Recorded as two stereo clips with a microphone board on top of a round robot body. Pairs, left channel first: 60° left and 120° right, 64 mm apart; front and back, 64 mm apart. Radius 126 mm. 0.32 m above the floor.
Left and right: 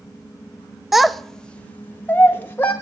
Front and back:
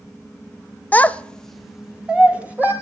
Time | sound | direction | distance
0.9 | a child speaking | 40° right | 0.6 m